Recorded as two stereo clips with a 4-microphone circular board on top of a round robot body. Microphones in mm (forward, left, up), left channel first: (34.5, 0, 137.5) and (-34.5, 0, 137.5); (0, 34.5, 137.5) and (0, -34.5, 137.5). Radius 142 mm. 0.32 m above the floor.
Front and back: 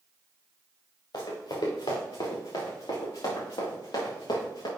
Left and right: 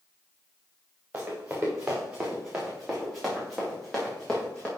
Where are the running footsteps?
20° right, 3.5 m; by 4.7 s 10° left, 4.5 m.